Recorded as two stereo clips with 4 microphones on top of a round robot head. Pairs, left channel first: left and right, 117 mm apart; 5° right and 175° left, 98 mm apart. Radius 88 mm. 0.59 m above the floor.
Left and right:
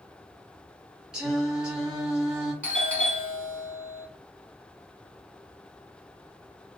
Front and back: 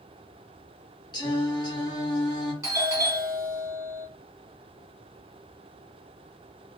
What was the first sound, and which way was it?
Singing, 5° right.